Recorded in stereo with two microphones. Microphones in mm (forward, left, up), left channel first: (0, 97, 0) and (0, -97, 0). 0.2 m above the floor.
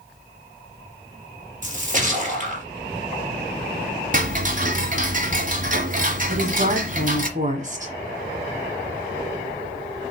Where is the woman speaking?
40° right (ahead or behind), 1.7 m.